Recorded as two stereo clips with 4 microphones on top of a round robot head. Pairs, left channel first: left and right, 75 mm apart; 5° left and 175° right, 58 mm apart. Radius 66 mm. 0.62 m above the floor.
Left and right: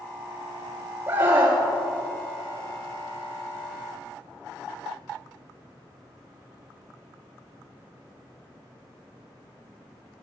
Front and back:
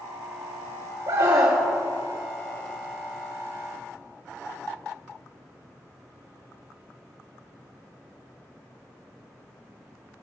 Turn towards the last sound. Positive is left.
turn(degrees=-140)